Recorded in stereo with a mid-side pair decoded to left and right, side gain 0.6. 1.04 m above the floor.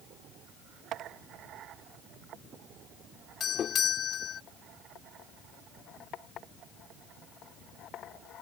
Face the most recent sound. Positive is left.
turn(degrees=45)